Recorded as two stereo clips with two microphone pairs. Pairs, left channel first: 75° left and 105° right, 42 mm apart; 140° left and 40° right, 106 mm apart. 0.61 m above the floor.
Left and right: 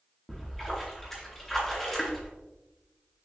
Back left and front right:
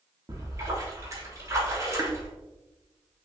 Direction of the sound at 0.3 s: 5° left.